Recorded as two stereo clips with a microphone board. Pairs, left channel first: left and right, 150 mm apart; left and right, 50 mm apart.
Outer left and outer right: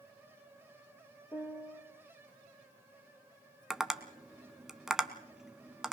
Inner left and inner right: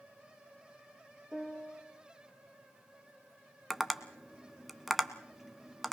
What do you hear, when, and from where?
1.3 s a piano: 20° left (ahead or behind), 2 m
3.7 s tapping: centre (ahead or behind), 1.0 m